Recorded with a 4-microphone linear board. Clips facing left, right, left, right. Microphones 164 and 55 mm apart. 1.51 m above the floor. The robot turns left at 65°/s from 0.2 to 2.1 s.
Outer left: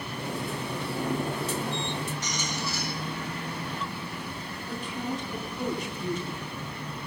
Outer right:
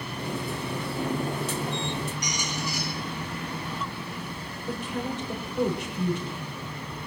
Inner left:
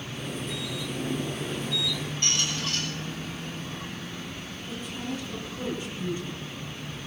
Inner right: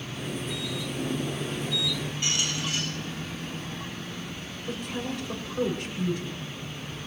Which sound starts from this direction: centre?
A squeak, at 2.2 s.